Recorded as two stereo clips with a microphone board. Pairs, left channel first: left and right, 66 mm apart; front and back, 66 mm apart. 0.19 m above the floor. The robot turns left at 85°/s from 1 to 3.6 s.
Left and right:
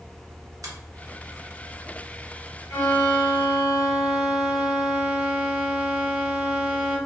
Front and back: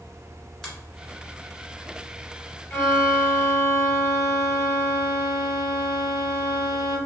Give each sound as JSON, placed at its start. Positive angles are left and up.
{"t": 0.6, "sound": "a finger snap", "azimuth_deg": -80, "distance_m": 1.5}
{"t": 2.7, "sound": "a violin", "azimuth_deg": 55, "distance_m": 1.4}